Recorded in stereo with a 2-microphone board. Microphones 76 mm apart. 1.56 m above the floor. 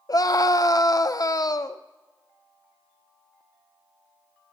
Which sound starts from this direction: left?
A scream, at 0.1 s.